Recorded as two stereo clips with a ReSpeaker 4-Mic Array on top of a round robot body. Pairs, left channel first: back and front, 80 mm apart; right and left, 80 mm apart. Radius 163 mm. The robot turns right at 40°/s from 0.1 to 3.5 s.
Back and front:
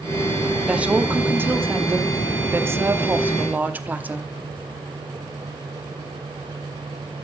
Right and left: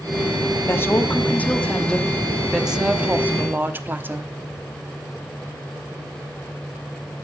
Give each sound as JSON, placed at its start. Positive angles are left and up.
{"t": 0.7, "sound": "a woman speaking", "azimuth_deg": -65, "distance_m": 1.4}